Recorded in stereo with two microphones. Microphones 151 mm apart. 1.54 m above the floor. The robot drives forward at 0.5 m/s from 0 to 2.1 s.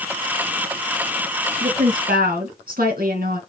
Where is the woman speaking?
70° right (ahead or behind), 2 m; by 3.4 s 75° right (ahead or behind), 2.0 m.